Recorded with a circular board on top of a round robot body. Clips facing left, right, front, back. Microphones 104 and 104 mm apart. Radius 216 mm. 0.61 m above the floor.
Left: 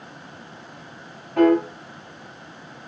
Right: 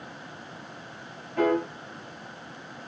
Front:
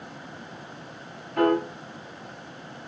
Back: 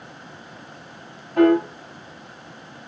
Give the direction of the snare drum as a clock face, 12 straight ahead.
I don't hear a snare drum.